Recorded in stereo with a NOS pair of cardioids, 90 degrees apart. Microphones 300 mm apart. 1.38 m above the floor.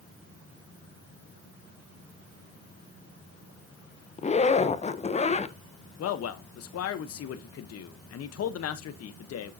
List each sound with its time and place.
4.2 s a zipper: 25° left, 0.8 m
6.0 s a man speaking: 55° left, 0.9 m